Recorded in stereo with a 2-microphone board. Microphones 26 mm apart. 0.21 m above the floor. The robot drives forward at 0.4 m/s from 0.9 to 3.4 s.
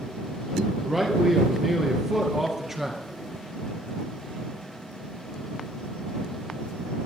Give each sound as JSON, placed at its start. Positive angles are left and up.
{"t": 0.8, "sound": "a man speaking", "side_deg": -20, "distance_m": 3.5}